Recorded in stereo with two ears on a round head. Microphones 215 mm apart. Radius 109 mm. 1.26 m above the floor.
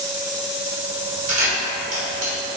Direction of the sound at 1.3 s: 35° right (ahead or behind).